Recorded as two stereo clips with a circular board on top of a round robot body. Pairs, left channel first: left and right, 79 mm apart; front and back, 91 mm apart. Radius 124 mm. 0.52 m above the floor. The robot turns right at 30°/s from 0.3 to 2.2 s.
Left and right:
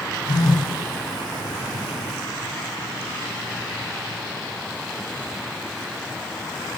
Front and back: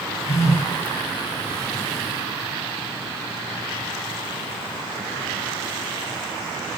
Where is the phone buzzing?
55° left, 7 m; by 0.7 s 65° left, 7 m.